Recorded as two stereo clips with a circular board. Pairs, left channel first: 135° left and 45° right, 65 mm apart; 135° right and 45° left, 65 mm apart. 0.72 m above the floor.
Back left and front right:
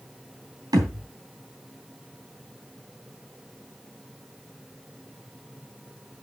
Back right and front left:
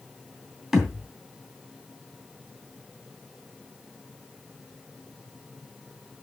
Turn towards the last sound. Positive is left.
turn(degrees=-40)